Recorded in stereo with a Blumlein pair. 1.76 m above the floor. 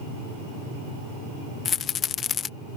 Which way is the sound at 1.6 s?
25° left.